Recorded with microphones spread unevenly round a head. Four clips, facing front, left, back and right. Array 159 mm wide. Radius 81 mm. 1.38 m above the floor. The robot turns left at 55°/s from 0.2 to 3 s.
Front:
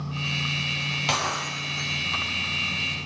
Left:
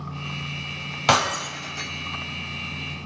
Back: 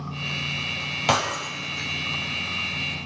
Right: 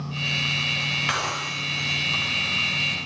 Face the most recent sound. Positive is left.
turn(degrees=20)